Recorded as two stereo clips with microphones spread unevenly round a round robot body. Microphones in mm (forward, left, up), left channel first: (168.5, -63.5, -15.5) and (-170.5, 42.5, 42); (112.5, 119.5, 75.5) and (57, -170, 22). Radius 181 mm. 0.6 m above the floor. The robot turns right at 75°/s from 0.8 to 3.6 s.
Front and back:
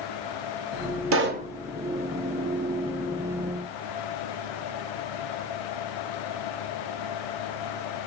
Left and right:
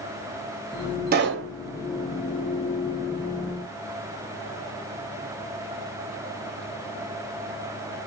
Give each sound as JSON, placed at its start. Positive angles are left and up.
{"t": 1.1, "sound": "a pop", "azimuth_deg": -145, "distance_m": 0.8}